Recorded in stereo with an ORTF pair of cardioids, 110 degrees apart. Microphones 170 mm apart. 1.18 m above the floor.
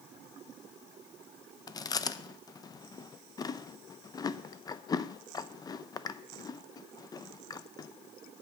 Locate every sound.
1.7 s chewing: 25° left, 0.5 m